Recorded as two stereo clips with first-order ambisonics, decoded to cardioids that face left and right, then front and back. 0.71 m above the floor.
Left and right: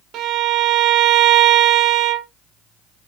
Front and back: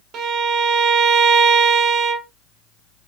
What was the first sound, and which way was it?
A violin, 135° right.